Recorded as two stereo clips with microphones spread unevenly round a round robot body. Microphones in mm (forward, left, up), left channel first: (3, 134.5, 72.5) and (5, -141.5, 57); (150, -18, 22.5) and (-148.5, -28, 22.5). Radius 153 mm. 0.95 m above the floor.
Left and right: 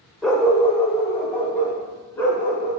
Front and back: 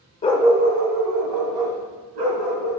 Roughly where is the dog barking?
Ahead.